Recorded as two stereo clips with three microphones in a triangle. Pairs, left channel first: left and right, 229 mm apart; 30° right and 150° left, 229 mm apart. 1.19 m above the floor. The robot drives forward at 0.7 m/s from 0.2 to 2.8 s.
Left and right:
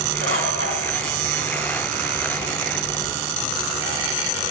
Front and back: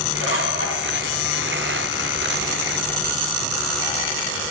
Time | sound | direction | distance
0.2 | a bird | 55° right | 3.5 m